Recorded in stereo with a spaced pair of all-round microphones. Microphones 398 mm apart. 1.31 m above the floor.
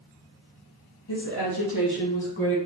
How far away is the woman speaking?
About 1.5 m.